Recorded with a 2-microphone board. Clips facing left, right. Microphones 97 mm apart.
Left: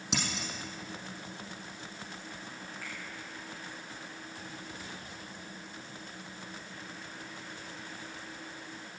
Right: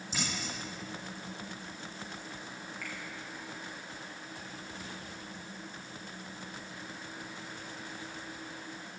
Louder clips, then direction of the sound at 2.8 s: Right 2 dB; 30° left (ahead or behind).